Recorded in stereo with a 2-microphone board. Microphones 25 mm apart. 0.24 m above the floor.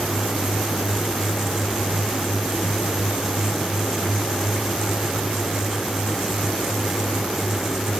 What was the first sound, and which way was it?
Only background noise.